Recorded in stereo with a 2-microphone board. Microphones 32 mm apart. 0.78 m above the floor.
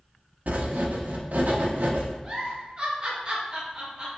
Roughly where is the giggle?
Right.